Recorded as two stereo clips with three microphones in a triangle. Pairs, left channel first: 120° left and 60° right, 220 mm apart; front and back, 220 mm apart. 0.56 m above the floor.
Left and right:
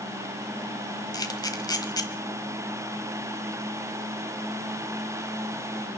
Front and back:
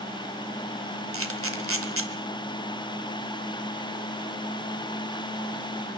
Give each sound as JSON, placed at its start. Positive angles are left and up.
{"t": 1.1, "sound": "a camera shutter", "azimuth_deg": -170, "distance_m": 1.3}